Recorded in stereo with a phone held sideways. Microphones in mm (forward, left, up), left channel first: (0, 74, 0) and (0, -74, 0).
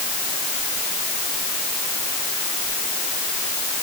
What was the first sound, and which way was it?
Only background noise.